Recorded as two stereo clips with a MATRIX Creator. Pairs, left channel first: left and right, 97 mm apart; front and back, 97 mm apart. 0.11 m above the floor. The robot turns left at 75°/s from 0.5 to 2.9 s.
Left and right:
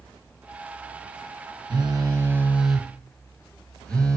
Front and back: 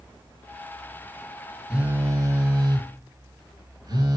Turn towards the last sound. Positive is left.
turn(degrees=170)